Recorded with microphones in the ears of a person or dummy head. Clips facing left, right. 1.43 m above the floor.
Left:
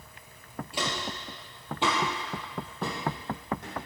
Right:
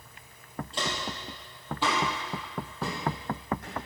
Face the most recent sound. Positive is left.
turn(degrees=25)  # may be behind; listen again after turning